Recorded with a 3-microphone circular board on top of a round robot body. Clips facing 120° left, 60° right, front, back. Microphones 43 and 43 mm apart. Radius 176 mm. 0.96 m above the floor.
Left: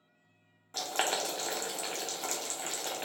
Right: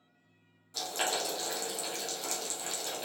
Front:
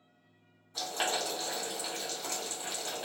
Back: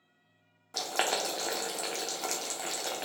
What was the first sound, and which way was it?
Boiling, 165° left.